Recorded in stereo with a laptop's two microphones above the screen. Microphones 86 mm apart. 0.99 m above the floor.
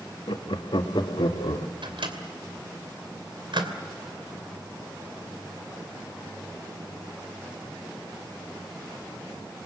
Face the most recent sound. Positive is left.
turn(degrees=-70)  # may be behind; listen again after turning